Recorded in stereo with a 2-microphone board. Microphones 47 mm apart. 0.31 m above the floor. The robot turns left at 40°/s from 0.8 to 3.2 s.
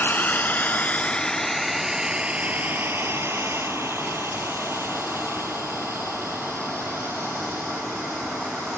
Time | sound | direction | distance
0.0 | a drone | 45° left (ahead or behind) | ?